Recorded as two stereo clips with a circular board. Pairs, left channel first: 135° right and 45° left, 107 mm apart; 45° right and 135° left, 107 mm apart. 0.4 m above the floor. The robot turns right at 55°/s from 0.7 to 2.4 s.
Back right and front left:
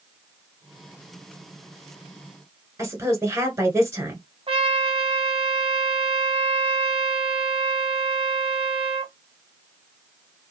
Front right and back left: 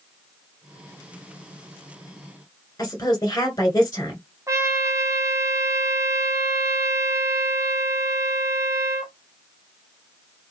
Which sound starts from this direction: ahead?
A woman speaking, at 2.8 s.